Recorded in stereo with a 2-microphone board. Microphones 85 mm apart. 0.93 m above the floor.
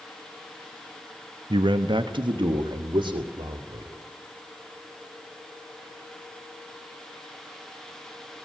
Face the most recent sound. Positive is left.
turn(degrees=-60)  # may be behind; listen again after turning